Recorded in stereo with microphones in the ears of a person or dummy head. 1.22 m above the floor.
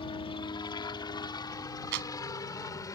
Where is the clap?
60° right (ahead or behind).